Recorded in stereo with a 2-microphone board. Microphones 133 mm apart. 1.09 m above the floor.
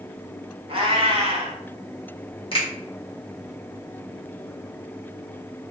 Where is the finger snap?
40° left (ahead or behind), 1.4 m.